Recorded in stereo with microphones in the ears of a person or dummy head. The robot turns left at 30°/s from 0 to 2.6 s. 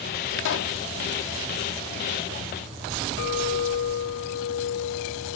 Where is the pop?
75° left (ahead or behind); by 0.8 s 60° left (ahead or behind).